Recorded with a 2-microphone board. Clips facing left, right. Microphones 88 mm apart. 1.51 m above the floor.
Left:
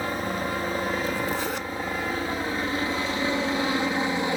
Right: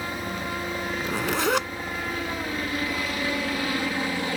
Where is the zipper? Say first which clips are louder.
Right 1 dB; 85° right.